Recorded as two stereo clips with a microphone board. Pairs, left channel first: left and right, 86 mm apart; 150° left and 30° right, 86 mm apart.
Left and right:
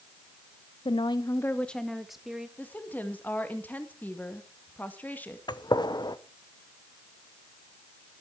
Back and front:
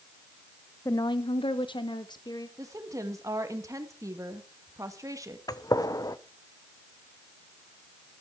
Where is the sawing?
No sawing in this recording.